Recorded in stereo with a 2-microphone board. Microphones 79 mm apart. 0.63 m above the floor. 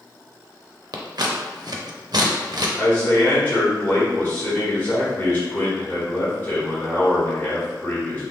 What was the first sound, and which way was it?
Scissors, 60° right (ahead or behind).